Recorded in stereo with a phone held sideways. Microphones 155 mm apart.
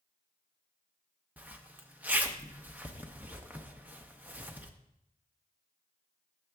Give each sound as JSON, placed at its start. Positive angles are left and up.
{"t": 1.4, "sound": "a zipper", "side_deg": -10, "distance_m": 0.7}